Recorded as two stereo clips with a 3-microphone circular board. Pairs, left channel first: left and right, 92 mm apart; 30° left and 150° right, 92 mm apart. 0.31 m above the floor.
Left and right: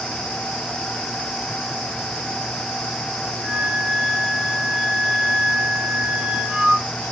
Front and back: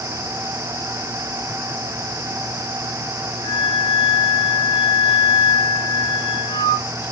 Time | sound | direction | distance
3.4 | a flute | 5° right | 1.1 m